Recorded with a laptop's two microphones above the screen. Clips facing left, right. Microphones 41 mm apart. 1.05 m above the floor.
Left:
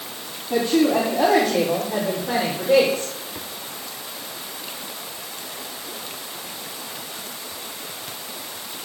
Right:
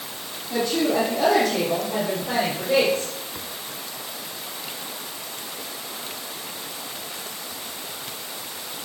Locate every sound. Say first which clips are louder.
0.5 s a woman speaking: left 4 dB; 30° left (ahead or behind), 2.5 m; by 3.1 s 5° left (ahead or behind), 4 m